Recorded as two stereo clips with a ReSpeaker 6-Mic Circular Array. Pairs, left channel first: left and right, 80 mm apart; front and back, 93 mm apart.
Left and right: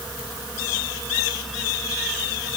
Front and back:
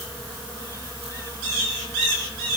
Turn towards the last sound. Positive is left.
No sound to turn to.